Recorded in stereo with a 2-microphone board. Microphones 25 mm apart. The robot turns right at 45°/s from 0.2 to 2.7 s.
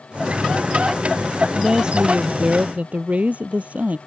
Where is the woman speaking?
155° right; by 4.0 s 105° right.